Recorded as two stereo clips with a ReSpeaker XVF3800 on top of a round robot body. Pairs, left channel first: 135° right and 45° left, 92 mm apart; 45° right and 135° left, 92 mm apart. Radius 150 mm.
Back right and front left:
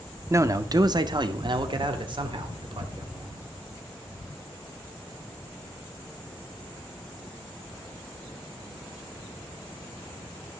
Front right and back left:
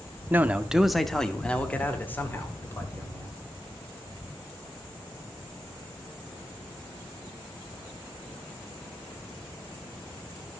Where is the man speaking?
80° left, 0.8 m; by 3.4 s 15° left, 2 m.